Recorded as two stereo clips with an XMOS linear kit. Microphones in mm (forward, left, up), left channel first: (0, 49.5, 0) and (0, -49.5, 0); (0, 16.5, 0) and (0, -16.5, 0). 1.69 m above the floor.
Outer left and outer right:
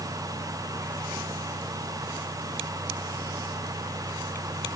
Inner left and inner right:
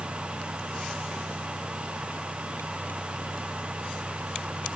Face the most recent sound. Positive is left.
No sound to turn to.